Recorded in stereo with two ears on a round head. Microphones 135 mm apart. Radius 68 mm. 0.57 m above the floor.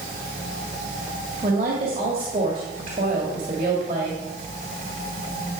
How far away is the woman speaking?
About 2 m.